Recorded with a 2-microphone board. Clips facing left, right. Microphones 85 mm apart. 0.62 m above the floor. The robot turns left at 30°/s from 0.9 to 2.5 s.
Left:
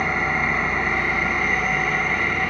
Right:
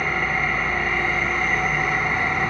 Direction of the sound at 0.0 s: 25° left.